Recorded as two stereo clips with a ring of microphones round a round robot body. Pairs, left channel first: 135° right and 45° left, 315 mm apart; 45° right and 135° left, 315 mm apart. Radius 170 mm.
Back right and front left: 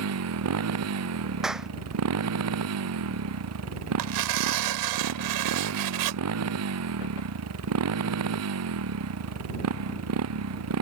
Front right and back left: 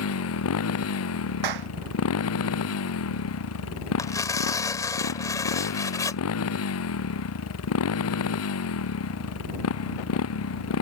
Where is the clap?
135° left.